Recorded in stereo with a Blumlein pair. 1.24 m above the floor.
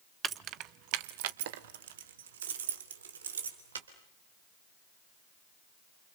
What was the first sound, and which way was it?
Keys jangling, 20° right.